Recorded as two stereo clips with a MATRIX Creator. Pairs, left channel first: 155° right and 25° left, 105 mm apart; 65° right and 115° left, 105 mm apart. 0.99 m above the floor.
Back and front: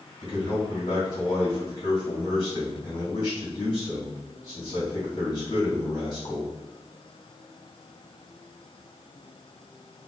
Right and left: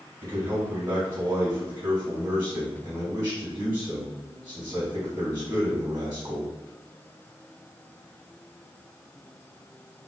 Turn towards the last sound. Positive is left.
turn(degrees=165)